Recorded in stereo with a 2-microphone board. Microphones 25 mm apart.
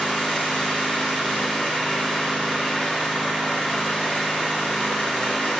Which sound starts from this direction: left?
An engine running, at 0.0 s.